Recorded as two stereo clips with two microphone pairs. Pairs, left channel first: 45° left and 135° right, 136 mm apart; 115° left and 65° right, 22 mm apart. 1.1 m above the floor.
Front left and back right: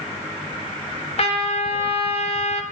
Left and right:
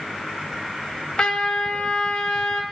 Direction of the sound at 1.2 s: 80° left.